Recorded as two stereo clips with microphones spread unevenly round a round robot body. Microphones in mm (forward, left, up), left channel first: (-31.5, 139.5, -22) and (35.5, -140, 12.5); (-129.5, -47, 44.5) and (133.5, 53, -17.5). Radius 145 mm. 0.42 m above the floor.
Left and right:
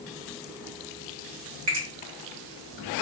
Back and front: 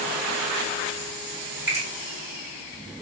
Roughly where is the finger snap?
Ahead right.